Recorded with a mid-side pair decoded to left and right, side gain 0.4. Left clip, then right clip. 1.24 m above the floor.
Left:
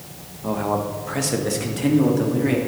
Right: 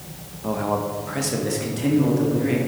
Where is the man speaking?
Straight ahead, 1.1 m; by 2.6 s 30° left, 2.5 m.